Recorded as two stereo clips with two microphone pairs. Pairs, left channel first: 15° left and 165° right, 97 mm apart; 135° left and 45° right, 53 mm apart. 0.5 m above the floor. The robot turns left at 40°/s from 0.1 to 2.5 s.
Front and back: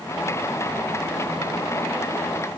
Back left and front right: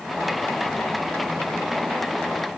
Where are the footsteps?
I don't hear footsteps.